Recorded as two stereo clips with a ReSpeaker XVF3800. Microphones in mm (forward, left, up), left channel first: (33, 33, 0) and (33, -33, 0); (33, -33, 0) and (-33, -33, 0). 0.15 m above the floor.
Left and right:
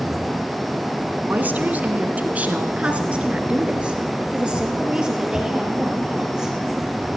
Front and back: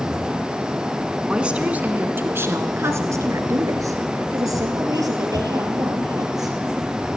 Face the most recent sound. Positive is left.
turn(degrees=-170)